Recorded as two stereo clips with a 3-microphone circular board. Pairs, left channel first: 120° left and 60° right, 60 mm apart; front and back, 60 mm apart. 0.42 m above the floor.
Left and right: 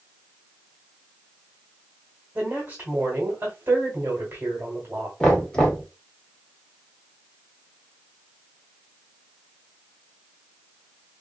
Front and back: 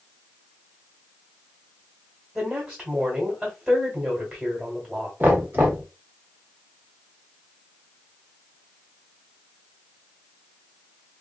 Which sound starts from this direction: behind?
Knocking, at 5.2 s.